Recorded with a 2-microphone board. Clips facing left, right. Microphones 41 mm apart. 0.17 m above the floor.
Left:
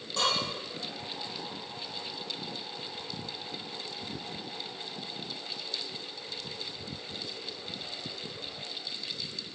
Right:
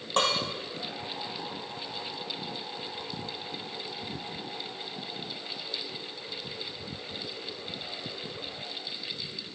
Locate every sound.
0.2 s dishes clattering: 60° right (ahead or behind), 3.5 m